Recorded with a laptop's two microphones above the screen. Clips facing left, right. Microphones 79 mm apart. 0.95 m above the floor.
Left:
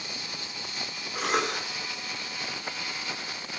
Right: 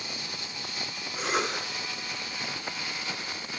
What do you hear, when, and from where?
1.1 s a cough: 75° left (ahead or behind), 9.5 m